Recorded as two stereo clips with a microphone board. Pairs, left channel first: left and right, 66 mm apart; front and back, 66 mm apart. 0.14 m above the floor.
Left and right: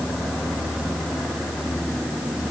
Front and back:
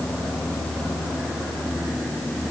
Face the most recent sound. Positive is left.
No sound to turn to.